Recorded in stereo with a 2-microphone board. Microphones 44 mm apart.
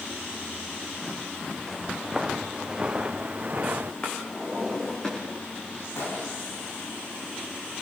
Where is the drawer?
15° left (ahead or behind), 8 m.